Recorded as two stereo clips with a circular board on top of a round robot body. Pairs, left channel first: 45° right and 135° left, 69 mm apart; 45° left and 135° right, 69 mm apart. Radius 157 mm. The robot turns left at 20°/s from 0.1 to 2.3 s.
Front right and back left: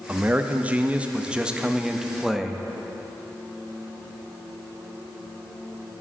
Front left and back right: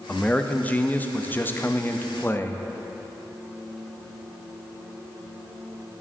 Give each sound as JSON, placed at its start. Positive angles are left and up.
{"t": 0.1, "sound": "a man speaking", "azimuth_deg": 100, "distance_m": 0.7}